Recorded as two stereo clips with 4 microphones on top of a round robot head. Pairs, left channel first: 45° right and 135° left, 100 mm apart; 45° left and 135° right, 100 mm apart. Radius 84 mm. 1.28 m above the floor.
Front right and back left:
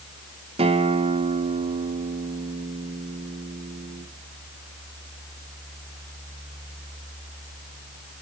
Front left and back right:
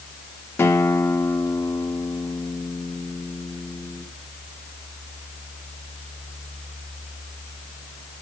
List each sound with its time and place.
0.6 s a guitar: 110° left, 1.7 m